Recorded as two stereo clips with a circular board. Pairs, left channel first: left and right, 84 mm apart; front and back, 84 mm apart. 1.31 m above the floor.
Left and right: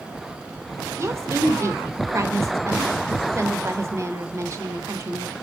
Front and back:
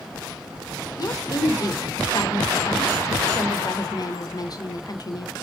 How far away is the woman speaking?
About 0.7 m.